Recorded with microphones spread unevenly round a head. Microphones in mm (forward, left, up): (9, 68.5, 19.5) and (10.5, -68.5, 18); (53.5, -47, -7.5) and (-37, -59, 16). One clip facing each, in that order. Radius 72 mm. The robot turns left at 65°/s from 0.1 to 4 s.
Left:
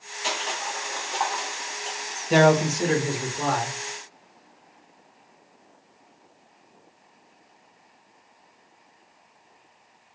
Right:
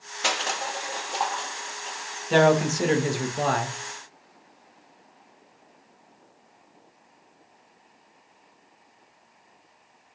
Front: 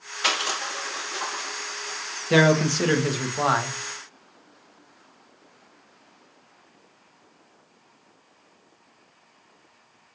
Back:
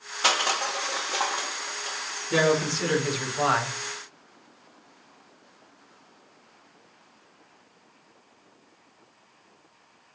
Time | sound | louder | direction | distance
0.2 | crushing | right 2 dB, back 2 dB | 115° right | 0.8 m
2.3 | a man speaking | left 1 dB, front 4 dB | 15° left | 1.2 m